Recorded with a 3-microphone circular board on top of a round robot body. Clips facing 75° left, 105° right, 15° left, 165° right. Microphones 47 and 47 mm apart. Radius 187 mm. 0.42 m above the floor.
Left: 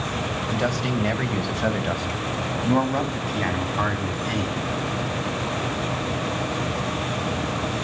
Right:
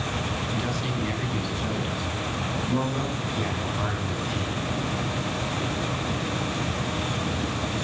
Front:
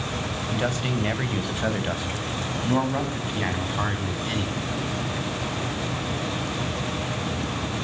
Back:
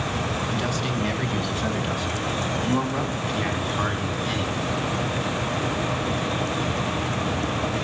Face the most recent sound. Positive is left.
turn(degrees=90)